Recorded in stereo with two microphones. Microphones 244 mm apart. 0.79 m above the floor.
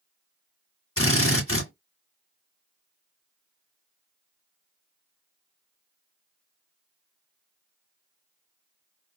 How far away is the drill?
About 2 m.